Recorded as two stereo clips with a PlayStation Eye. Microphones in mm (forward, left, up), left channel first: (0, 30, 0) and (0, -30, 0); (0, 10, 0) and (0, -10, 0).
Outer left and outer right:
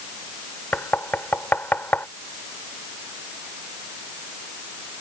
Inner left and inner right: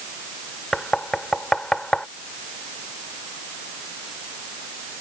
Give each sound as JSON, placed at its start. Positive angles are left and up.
{"t": 0.7, "sound": "knocking", "side_deg": 35}